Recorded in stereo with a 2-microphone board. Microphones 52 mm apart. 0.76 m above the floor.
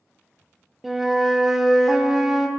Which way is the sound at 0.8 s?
5° right (ahead or behind).